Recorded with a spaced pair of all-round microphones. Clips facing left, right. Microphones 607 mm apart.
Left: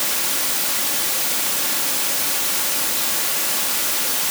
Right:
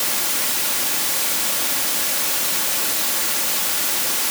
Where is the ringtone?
I don't hear a ringtone.